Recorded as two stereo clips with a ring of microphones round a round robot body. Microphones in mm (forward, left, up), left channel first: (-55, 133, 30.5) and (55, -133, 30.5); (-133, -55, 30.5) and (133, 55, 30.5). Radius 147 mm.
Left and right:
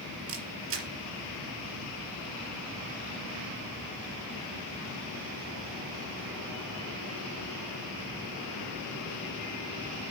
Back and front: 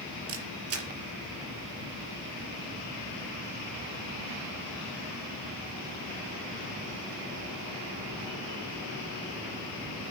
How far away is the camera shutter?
About 4 m.